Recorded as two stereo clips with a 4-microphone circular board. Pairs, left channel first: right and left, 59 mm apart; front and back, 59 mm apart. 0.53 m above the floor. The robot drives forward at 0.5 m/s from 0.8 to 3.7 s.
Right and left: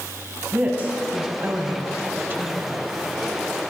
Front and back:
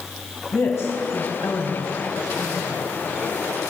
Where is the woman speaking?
25° left, 3.5 m; by 2.8 s 35° left, 2.5 m.